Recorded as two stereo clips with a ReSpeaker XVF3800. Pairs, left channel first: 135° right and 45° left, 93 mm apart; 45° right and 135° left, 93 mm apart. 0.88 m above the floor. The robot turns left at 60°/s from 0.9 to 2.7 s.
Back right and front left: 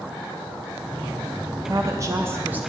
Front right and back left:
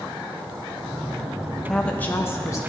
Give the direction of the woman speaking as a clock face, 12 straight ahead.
11 o'clock.